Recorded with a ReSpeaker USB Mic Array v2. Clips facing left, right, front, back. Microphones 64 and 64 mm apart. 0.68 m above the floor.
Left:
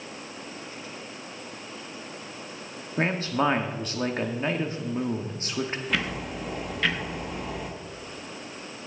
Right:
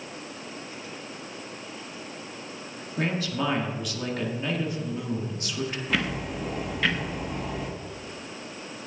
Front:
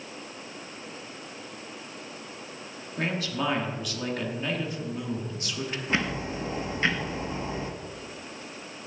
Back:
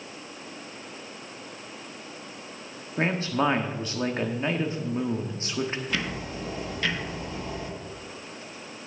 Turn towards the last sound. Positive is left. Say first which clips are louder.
# right 1 dB, front 3 dB
turn(degrees=0)